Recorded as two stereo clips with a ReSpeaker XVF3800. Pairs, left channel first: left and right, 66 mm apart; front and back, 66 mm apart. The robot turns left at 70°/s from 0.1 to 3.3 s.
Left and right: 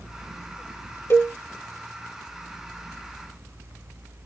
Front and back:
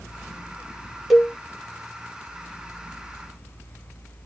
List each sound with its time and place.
1.1 s a cowbell: 95° left, 1.1 m; by 1.3 s 80° left, 1.1 m